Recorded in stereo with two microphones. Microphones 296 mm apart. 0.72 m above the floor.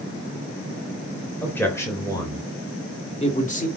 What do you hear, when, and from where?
1.4 s a man speaking: 5° left (ahead or behind), 4 m; by 3.7 s 30° left (ahead or behind), 2 m